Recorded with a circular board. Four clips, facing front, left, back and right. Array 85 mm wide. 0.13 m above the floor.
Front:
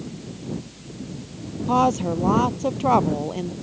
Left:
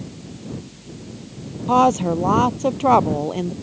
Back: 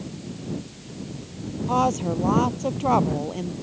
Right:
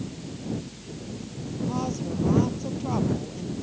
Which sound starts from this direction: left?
A woman speaking, at 1.7 s.